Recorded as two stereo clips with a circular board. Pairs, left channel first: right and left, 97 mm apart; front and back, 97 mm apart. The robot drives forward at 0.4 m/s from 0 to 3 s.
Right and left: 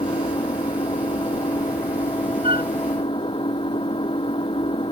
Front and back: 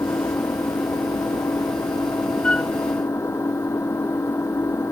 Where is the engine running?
60° right; by 4.9 s 65° right.